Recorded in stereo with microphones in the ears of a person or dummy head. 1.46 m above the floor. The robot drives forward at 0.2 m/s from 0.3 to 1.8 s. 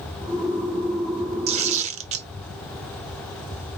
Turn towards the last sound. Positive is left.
turn(degrees=-35)  # may be behind; listen again after turning